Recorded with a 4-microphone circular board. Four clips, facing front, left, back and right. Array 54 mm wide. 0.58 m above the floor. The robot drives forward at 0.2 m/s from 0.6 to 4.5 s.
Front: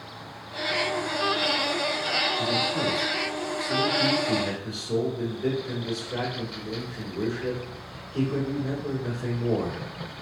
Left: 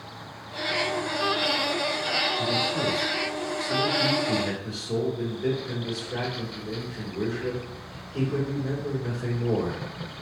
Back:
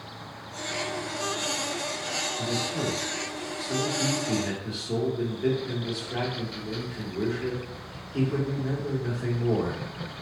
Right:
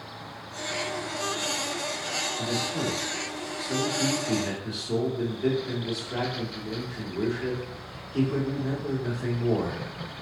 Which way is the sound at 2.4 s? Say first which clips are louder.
Left 3 dB, front 4 dB; 100° right.